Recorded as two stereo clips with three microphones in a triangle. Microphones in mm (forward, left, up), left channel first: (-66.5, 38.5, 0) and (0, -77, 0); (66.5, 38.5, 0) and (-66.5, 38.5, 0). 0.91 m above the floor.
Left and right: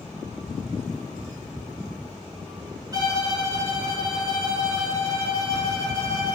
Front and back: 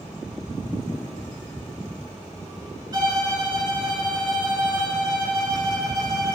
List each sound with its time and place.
2.9 s a violin: 120° right, 2 m